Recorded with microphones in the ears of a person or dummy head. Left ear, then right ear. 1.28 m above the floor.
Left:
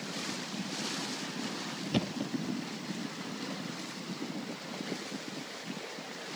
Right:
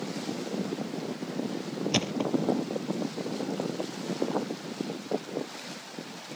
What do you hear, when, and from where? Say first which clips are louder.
1.9 s a thud: right 7 dB; 40° right (ahead or behind)